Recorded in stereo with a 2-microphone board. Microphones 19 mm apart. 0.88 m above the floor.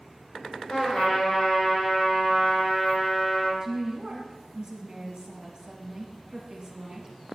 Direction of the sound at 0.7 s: 80° left.